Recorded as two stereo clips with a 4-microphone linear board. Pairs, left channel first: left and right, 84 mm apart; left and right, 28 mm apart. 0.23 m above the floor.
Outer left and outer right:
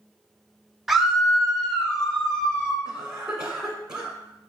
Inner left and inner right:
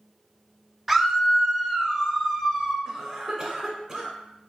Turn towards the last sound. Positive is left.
turn(degrees=-10)  # may be behind; listen again after turning